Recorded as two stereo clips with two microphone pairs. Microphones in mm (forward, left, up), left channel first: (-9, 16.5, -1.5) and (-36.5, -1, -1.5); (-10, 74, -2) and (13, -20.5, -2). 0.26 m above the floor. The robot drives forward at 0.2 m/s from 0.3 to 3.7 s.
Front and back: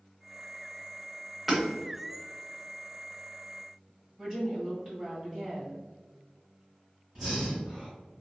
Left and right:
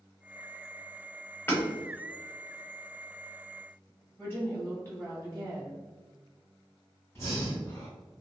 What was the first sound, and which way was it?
Hammering, 125° left.